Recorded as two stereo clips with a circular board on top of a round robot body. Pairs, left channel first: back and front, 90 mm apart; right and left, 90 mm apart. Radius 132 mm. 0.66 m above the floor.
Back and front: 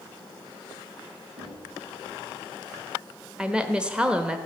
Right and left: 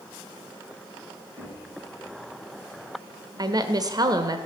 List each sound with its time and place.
1.4 s knocking: 10° right, 5 m
3.4 s a woman speaking: 75° left, 1.0 m